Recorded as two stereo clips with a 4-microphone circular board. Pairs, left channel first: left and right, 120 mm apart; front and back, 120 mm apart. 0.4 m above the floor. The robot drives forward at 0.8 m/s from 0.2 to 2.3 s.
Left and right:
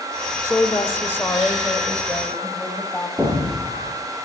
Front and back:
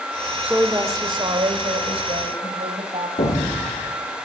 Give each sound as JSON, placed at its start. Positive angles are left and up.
{"t": 0.4, "sound": "a woman speaking", "azimuth_deg": 110, "distance_m": 0.8}
{"t": 3.2, "sound": "an explosion", "azimuth_deg": -10, "distance_m": 3.5}